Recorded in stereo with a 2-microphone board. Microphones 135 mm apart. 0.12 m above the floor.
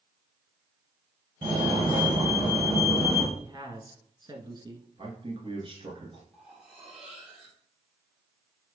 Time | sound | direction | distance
1.4 | a fire alarm | 35° right (ahead or behind) | 3.5 m
3.4 | a man speaking | 35° right (ahead or behind) | 1.2 m
5.0 | a man speaking | 40° right (ahead or behind) | 1.8 m
6.3 | cutlery clinking | 5° right (ahead or behind) | 2.5 m